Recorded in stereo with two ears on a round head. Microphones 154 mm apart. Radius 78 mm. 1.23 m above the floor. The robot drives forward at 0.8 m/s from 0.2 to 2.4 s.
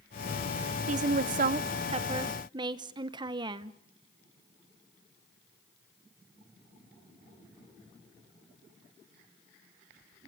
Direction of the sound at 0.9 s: 40° right (ahead or behind).